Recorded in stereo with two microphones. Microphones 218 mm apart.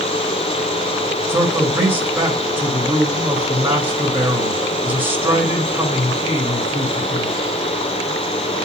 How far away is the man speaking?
About 2 m.